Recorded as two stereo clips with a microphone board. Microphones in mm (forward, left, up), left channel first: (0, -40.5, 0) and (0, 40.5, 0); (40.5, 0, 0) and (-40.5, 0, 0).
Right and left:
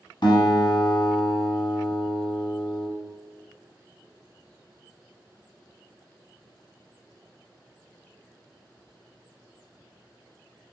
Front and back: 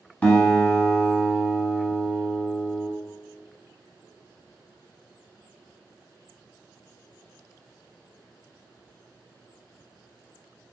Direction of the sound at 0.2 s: 70° right.